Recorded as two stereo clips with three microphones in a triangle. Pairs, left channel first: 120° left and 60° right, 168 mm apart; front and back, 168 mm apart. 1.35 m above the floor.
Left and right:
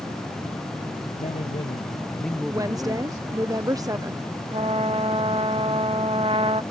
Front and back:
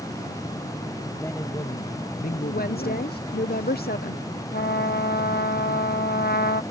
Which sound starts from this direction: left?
A man speaking, at 1.2 s.